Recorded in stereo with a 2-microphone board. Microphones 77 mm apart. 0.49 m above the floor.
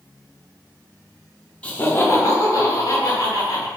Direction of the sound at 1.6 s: 15° left (ahead or behind).